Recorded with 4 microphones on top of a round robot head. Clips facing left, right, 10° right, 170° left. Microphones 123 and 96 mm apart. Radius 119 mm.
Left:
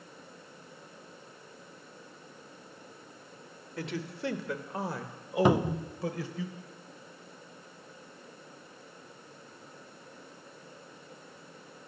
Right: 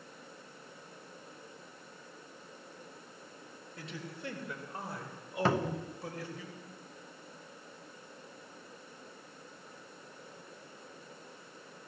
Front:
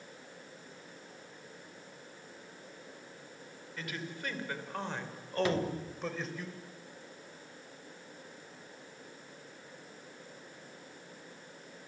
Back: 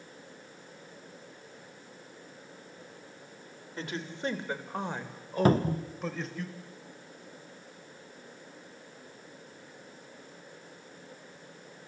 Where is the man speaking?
110° left, 2.5 m; by 6.5 s 80° left, 3.5 m.